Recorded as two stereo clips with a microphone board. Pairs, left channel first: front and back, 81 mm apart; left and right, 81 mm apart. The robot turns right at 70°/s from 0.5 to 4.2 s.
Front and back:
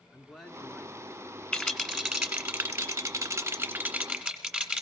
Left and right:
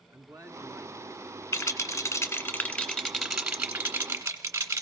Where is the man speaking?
85° right, 2 m; by 1.4 s 20° right, 2 m.